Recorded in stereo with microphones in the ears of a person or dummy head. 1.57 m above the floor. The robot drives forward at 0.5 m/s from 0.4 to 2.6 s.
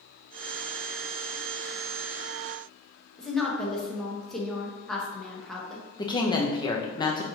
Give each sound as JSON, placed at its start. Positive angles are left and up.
{"t": 3.2, "sound": "a woman speaking", "side_deg": 15, "distance_m": 1.0}
{"t": 6.0, "sound": "a woman speaking", "side_deg": 15, "distance_m": 0.6}